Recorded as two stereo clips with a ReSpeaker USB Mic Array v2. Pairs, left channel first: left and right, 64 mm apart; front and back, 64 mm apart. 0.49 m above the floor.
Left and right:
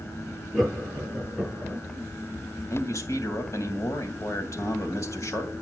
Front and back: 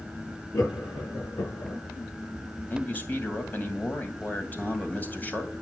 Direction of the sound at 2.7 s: 60° left.